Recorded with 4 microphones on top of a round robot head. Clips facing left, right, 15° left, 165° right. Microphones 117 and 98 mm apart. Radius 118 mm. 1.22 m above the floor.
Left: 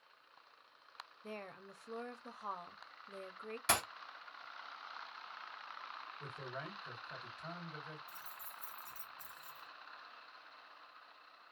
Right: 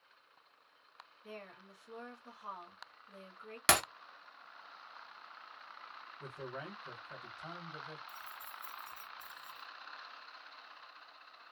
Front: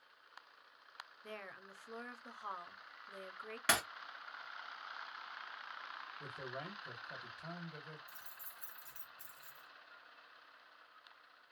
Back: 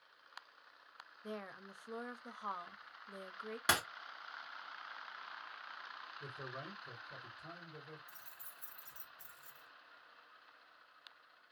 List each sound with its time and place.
1.2 s a woman speaking: 125° left, 0.7 m
3.7 s breaking glass: 90° right, 0.7 m
6.2 s a man speaking: 5° right, 1.4 m
8.1 s keys jangling: 90° left, 0.6 m